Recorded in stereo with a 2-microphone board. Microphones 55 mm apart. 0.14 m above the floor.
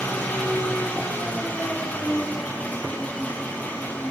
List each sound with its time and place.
0.0 s an engine running: 25° left (ahead or behind), 3 m